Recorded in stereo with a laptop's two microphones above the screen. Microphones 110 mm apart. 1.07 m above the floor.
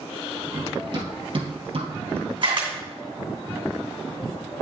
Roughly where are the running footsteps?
Right.